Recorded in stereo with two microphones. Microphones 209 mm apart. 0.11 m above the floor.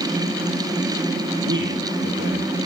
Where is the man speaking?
65° right (ahead or behind), 4 m.